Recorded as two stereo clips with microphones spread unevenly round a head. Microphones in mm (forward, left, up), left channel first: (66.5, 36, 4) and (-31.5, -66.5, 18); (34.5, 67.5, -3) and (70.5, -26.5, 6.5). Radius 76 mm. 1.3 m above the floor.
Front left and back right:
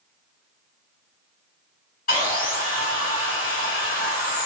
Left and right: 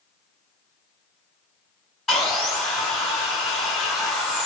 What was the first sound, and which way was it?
Sawing, 25° left.